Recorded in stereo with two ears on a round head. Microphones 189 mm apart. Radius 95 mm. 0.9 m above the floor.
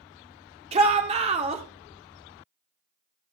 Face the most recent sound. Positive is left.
turn(degrees=-30)  # may be behind; listen again after turning